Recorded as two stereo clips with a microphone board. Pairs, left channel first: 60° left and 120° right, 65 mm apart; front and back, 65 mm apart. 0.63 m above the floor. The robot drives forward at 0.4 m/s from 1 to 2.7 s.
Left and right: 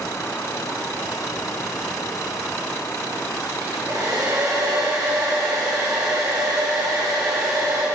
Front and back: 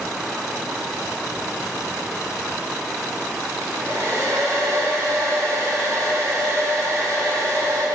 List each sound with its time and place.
3.6 s a hair dryer: 140° right, 1.4 m